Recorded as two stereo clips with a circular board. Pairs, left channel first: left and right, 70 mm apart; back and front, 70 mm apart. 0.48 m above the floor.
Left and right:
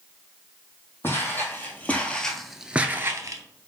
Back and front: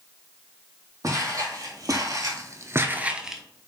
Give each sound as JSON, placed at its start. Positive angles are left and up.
{"t": 1.0, "sound": "footsteps", "azimuth_deg": 35, "distance_m": 1.3}